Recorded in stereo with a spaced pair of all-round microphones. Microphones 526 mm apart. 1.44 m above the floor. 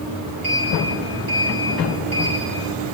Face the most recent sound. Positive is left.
turn(degrees=-75)  # may be behind; listen again after turning